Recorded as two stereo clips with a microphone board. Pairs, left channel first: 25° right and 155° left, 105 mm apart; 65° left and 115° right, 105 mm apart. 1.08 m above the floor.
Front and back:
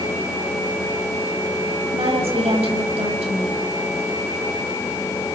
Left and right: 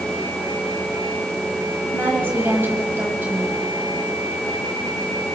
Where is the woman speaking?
175° left, 6.5 m.